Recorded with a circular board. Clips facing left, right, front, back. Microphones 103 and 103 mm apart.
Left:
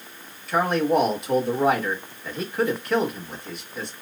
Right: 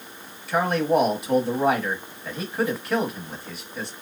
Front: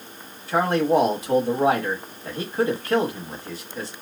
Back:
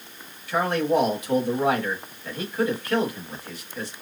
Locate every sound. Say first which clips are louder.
0.5 s a man speaking: even, front 3 dB; 5° right, 1.0 m